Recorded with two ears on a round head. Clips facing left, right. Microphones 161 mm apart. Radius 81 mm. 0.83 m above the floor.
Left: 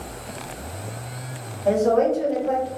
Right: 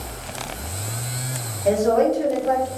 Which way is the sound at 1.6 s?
30° right (ahead or behind).